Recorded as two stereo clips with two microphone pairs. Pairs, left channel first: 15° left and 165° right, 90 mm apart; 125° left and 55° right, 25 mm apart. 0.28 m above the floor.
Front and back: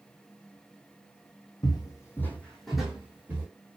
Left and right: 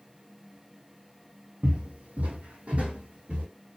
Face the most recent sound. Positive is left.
turn(degrees=-95)